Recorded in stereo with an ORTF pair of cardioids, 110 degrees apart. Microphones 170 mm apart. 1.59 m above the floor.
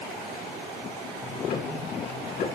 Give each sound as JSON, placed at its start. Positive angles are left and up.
{"t": 1.2, "sound": "ticking", "azimuth_deg": 60, "distance_m": 5.5}